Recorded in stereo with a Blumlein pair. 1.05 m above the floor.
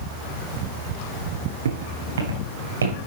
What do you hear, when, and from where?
1.6 s footsteps: 65° right, 5.5 m; by 3.0 s 75° right, 5 m